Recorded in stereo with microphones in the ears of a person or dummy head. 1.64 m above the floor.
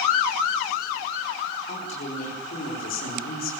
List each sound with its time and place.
1.7 s a woman speaking: 35° left (ahead or behind), 6 m; by 3.5 s 45° left (ahead or behind), 6 m